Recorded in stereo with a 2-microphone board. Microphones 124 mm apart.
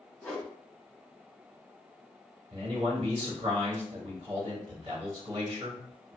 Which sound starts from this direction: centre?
A whoosh, at 0.2 s.